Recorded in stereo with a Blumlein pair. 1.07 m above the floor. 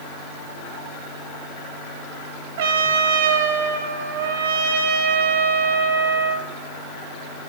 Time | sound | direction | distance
2.6 | a trumpet | 50° right | 1.8 m